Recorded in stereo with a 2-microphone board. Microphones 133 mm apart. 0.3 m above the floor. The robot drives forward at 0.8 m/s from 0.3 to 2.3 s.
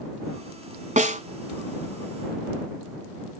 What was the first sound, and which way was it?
A snare drum, 70° right (ahead or behind).